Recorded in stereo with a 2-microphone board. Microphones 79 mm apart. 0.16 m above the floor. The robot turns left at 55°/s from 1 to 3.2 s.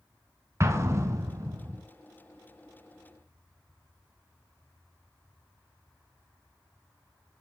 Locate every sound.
0.6 s an explosion: 65° right, 0.9 m; by 1.8 s 110° right, 0.9 m